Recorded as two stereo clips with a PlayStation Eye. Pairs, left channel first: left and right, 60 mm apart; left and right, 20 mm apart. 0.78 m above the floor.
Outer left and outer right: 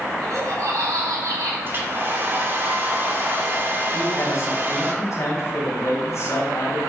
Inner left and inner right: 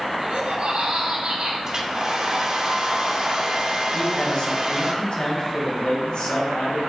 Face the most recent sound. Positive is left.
turn(degrees=55)  # may be behind; listen again after turning